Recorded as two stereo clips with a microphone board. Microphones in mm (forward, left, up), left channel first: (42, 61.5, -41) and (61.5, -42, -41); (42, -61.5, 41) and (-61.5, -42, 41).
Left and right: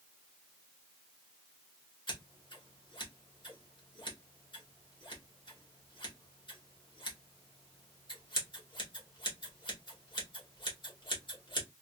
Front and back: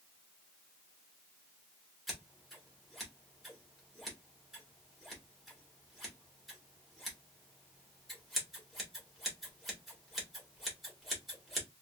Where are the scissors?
80° left, 1.7 m.